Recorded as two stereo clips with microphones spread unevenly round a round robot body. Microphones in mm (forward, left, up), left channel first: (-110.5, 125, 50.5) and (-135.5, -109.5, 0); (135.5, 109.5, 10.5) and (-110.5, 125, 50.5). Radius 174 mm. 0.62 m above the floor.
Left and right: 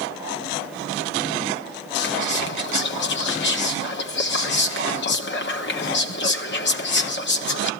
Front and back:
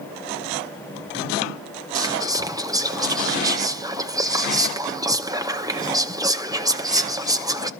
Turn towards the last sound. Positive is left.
turn(degrees=95)